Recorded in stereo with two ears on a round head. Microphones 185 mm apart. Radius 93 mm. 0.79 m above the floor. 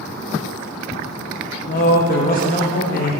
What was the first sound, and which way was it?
A man speaking, 40° left (ahead or behind).